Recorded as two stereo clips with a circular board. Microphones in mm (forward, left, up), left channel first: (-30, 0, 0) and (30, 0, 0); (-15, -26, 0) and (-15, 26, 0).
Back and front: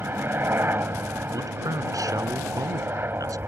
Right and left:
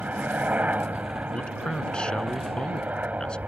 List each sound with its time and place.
0.0 s a helicopter: 40° left
1.3 s a man speaking: 15° right